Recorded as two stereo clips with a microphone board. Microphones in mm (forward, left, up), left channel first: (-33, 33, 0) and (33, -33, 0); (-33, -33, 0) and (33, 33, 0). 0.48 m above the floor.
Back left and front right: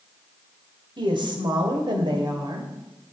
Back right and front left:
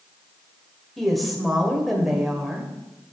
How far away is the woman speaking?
About 2.5 m.